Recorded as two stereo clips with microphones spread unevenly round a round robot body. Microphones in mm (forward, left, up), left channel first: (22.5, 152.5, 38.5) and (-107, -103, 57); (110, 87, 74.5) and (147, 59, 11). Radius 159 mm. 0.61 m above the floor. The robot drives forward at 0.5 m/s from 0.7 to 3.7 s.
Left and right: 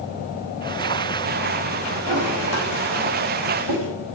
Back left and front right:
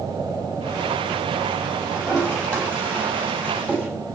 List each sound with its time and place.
1.9 s a toilet flushing: 60° right, 4.5 m; by 3.9 s 70° right, 4 m